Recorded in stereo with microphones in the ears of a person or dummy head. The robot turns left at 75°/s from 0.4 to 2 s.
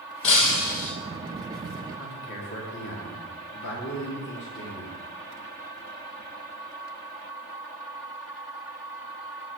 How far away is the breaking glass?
About 3 m.